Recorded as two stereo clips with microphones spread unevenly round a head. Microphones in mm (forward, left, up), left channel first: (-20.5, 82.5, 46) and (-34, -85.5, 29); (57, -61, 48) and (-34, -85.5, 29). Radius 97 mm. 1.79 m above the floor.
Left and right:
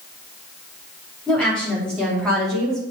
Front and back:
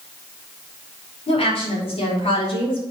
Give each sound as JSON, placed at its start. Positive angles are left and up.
{"t": 1.3, "sound": "a woman speaking", "azimuth_deg": 0, "distance_m": 5.5}